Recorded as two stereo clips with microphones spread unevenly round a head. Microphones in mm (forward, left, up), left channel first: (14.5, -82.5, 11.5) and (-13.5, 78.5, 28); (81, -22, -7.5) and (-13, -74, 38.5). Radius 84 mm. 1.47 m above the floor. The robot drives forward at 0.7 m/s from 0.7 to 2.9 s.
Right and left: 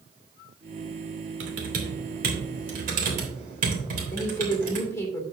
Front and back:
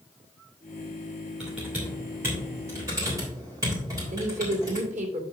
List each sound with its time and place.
1.4 s typing on a keyboard: 120° left, 2.5 m; by 4.9 s 135° left, 3 m
4.1 s a woman speaking: 150° right, 2.5 m